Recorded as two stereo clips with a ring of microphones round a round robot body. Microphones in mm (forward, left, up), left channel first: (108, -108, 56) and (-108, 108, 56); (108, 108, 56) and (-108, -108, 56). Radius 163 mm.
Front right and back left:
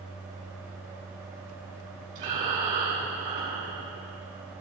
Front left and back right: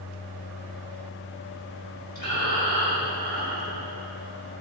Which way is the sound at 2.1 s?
105° left.